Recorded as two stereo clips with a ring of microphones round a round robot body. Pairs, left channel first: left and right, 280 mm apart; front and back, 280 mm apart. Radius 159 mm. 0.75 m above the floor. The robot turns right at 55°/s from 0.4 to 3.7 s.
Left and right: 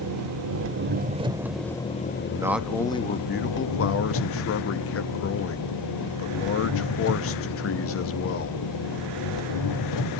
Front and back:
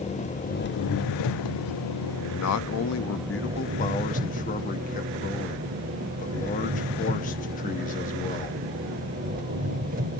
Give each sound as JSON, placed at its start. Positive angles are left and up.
{"t": 0.0, "sound": "an engine running", "azimuth_deg": -65, "distance_m": 0.8}
{"t": 2.3, "sound": "a man speaking", "azimuth_deg": -15, "distance_m": 0.8}